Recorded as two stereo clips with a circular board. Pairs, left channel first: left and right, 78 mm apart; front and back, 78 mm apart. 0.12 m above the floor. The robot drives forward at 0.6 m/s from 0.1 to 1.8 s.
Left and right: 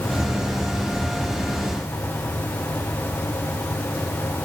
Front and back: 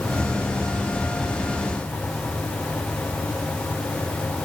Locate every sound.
Only background noise.